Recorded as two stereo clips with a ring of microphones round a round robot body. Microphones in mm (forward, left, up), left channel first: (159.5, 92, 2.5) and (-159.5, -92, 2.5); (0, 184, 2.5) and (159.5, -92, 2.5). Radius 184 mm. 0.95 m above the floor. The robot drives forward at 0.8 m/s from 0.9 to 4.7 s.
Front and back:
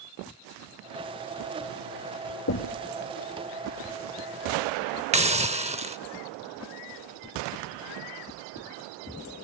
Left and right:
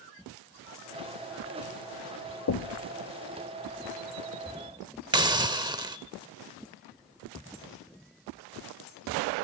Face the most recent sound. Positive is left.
turn(degrees=-115)